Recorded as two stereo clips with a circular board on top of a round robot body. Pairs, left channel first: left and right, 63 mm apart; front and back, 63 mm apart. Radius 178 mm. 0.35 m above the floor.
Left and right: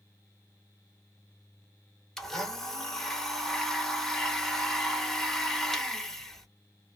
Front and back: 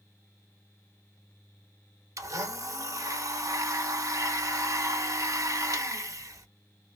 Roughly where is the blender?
Behind.